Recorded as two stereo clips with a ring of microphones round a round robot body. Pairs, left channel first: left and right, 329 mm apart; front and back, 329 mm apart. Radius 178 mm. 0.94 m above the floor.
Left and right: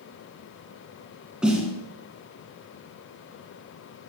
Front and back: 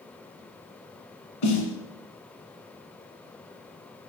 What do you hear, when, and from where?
1.4 s a snare drum: 5° right, 2 m